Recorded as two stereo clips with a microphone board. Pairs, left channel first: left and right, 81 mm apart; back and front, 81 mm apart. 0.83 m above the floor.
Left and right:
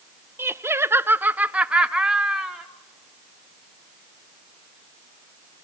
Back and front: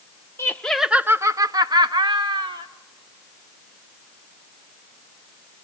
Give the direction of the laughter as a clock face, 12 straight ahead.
4 o'clock.